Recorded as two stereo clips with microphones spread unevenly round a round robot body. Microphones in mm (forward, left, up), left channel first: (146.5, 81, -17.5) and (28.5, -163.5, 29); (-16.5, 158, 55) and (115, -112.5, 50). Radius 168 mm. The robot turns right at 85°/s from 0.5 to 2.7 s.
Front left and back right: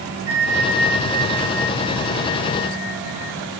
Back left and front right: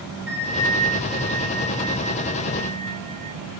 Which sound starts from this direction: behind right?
A bell, at 0.3 s.